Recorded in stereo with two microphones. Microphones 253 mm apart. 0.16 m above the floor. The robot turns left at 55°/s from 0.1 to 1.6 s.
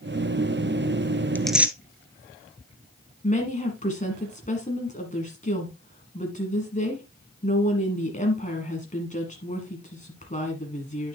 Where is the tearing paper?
5° left (ahead or behind), 0.5 m; by 1.8 s 5° right (ahead or behind), 0.5 m.